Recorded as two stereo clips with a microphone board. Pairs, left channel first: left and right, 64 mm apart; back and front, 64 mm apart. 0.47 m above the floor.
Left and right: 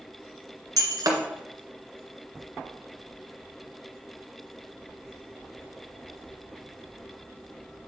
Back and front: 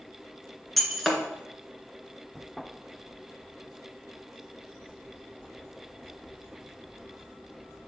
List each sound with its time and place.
0.8 s breaking glass: 90° right, 1.6 m